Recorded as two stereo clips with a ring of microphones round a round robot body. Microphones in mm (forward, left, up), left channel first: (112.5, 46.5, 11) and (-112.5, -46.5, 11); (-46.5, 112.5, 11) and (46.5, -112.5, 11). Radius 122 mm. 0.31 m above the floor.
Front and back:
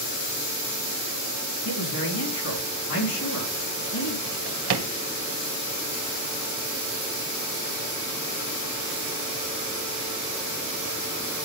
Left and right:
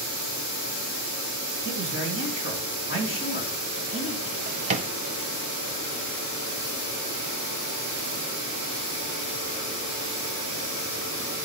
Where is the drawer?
130° right, 0.9 m.